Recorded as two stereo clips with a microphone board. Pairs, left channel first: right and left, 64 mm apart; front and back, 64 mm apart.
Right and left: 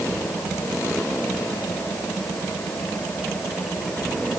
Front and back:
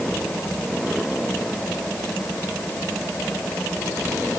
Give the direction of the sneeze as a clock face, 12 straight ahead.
No sneeze in this recording.